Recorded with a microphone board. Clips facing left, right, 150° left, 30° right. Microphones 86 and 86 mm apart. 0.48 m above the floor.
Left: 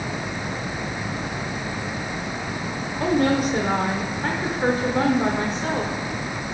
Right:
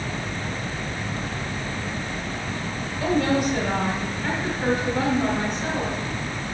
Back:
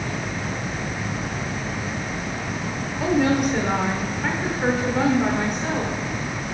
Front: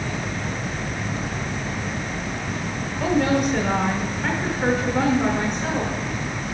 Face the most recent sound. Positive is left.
turn(degrees=65)